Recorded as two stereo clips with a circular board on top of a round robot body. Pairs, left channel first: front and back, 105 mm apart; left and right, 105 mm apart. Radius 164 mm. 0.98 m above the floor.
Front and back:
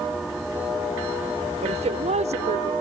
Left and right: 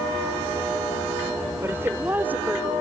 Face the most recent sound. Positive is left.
turn(degrees=-170)